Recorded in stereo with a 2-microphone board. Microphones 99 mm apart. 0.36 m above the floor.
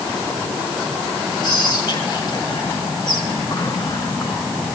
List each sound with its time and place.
1.4 s whispering: 45° left (ahead or behind), 4 m